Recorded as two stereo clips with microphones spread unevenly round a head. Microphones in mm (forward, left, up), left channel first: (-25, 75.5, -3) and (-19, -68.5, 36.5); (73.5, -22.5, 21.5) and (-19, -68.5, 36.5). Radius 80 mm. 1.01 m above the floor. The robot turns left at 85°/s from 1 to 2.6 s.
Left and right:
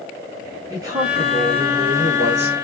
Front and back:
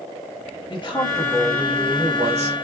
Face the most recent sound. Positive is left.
turn(degrees=-155)